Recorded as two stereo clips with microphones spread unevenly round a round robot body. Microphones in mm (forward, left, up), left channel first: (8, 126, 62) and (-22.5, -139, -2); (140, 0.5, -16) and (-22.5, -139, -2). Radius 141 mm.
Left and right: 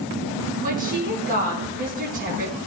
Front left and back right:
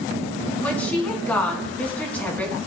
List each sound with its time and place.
0.6 s a woman speaking: 40° right, 4 m